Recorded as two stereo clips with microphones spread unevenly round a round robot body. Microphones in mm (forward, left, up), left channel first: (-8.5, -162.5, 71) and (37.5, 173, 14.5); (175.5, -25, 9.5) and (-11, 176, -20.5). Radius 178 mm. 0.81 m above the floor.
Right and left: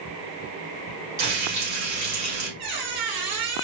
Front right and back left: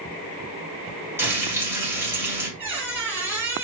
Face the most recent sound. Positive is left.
turn(degrees=50)